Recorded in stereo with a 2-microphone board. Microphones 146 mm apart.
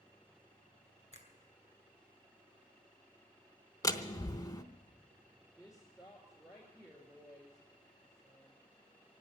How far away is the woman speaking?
About 2.5 m.